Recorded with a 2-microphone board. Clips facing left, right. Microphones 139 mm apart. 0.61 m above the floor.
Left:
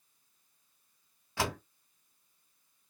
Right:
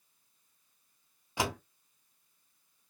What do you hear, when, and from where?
1.4 s a door slam: 15° right (ahead or behind), 1.4 m